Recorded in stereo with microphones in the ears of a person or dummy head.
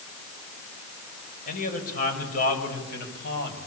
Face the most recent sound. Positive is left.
turn(degrees=60)  # may be behind; listen again after turning